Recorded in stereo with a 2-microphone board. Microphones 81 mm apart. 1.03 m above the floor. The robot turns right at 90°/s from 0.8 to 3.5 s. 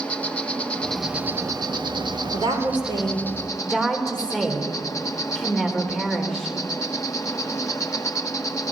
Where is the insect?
165° left, 1.3 m; by 8.7 s 45° left, 1.3 m.